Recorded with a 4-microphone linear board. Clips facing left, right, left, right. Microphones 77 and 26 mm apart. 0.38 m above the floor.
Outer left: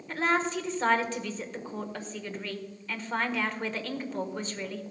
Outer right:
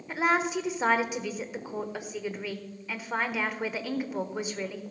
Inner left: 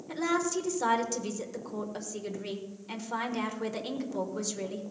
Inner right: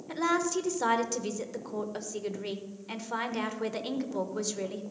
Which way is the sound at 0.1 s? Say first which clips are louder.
Outer right 1 dB, inner right 1 dB; 10° right (ahead or behind).